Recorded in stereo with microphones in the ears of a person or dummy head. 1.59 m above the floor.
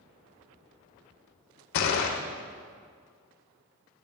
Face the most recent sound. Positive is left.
turn(degrees=55)  # may be behind; listen again after turning